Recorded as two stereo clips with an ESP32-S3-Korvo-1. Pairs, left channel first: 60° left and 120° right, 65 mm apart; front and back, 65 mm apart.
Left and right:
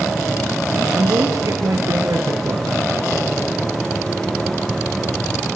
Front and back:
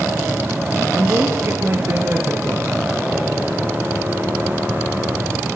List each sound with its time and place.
0.9 s a woman speaking: 135° right, 3 m